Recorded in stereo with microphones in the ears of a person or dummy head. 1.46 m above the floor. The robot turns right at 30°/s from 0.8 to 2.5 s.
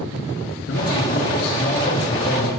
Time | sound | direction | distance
0.7 | a man speaking | 105° left | 3.5 m